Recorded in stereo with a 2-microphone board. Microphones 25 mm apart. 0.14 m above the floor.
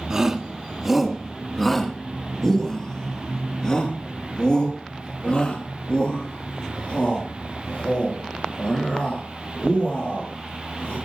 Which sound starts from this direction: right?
A shout, at 0.1 s.